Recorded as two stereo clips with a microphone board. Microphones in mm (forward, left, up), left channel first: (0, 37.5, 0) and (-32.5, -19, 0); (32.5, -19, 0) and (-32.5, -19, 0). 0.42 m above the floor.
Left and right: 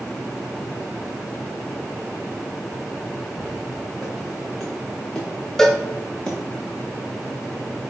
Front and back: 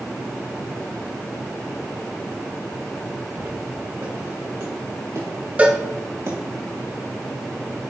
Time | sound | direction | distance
3.4 | footsteps | 145° left | 2.5 m
5.6 | a cowbell | 135° left | 0.8 m